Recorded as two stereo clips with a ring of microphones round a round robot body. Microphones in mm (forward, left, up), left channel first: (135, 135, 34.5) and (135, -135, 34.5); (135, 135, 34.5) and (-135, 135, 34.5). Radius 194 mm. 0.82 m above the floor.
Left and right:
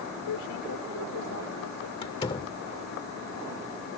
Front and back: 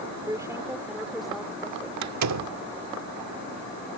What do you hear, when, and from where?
0.3 s a woman speaking: 105° left; by 1.9 s 80° left
2.0 s a door slam: 165° left